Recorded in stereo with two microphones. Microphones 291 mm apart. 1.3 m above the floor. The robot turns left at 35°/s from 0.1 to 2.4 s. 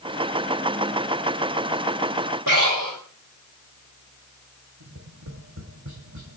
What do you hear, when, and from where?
2.5 s breathing: 80° right, 4 m
4.8 s tapping: 75° right (ahead or behind), 3 m